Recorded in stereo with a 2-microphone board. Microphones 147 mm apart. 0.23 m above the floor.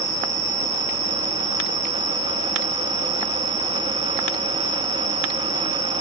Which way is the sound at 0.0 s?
20° right (ahead or behind).